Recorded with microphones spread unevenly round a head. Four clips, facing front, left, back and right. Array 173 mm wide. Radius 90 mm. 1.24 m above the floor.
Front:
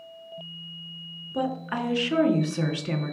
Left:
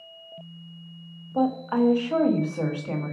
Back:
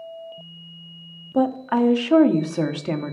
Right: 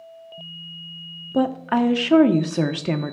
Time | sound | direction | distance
1.3 | a woman speaking | 100° right | 1.3 m